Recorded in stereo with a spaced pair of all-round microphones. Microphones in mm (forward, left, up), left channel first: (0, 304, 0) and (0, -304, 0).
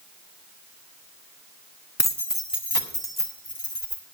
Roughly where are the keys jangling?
Left.